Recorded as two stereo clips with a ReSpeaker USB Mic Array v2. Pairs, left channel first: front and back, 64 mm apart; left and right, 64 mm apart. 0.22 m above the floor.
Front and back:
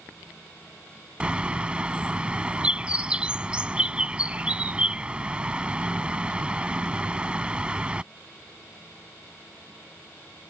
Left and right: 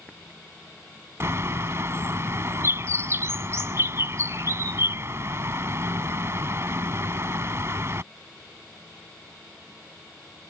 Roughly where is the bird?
Behind right.